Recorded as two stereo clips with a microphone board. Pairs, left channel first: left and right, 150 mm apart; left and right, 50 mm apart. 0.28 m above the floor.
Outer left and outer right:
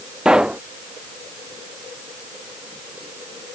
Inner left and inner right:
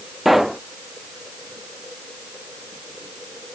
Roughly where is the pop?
Centre.